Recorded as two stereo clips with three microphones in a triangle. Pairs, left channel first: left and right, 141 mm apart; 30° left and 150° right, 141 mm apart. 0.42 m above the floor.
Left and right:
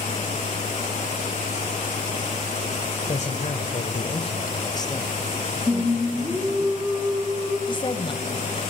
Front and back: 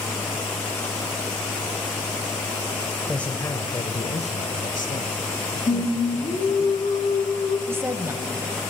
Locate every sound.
3.1 s a man speaking: 115° left, 1.5 m; by 6.7 s 10° left, 3.5 m
5.7 s singing: 15° right, 3 m
7.7 s a woman speaking: 140° left, 2 m